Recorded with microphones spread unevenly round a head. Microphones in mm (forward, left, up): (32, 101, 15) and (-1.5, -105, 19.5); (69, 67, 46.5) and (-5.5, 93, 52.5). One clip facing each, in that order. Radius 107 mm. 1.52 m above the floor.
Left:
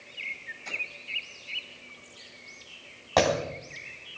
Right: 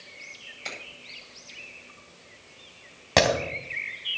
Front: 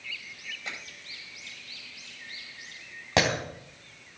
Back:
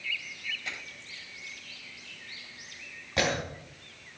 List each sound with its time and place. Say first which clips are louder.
0.7 s a finger snap: right 3 dB, front 3 dB; 95° right, 8.5 m
3.2 s breaking glass: right 1 dB, front 3 dB; 45° right, 3 m